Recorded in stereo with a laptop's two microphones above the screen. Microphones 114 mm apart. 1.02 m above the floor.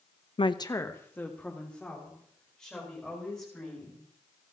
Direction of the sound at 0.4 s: 55° left (ahead or behind).